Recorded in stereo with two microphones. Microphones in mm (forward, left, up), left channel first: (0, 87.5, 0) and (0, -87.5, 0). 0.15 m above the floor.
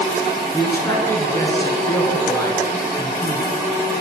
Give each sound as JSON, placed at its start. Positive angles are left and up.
{"t": 0.5, "sound": "a man speaking", "side_deg": 20, "distance_m": 1.5}